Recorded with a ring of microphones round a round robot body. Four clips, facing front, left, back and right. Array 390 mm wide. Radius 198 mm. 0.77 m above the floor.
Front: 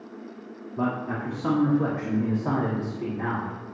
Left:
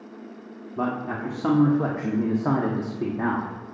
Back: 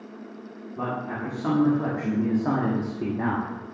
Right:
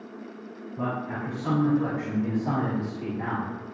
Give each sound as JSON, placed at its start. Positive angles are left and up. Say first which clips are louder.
{"t": 0.8, "sound": "a man speaking", "louder": "left 3 dB, front 2 dB", "azimuth_deg": 85, "distance_m": 2.5}